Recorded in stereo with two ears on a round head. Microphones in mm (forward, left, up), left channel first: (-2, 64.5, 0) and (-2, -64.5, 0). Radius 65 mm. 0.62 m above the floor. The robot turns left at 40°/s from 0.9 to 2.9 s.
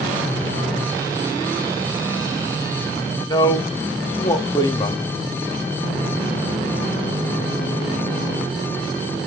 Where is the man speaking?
25° left (ahead or behind), 0.7 m.